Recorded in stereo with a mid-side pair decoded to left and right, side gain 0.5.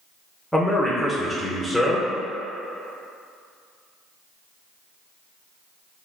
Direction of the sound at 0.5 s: 5° left.